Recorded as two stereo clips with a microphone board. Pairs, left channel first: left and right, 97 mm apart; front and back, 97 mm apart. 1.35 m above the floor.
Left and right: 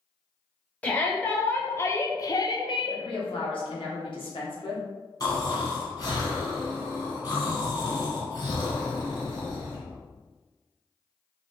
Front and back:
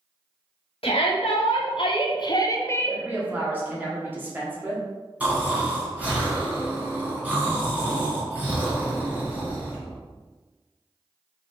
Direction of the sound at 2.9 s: 110° left.